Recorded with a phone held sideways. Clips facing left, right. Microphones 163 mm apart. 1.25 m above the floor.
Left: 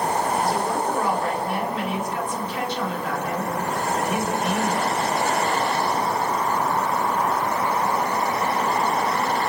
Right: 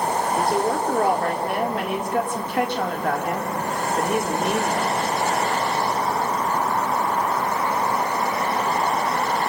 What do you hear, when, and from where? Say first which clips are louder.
0.3 s a woman speaking: right 2 dB; 55° right (ahead or behind), 3 m